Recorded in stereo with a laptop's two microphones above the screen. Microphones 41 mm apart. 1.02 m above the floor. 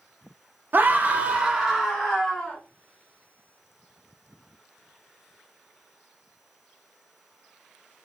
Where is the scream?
50° right (ahead or behind), 0.5 m; by 2.6 s 5° left (ahead or behind), 1.0 m.